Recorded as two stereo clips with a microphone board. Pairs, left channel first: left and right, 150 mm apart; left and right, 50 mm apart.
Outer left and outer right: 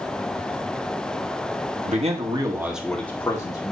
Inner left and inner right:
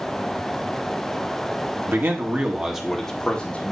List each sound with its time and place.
1.9 s a man speaking: 50° right (ahead or behind), 1.7 m; by 3.7 s 30° left (ahead or behind), 2.5 m